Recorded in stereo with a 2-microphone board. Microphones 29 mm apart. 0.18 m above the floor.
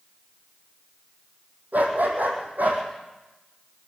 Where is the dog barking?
65° right (ahead or behind), 3 m; by 2.8 s 60° right (ahead or behind), 4 m.